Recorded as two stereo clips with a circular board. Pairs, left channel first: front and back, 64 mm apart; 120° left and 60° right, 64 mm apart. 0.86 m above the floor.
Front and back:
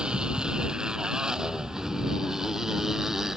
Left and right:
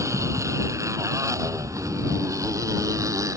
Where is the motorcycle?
105° right; by 3.4 s 95° right.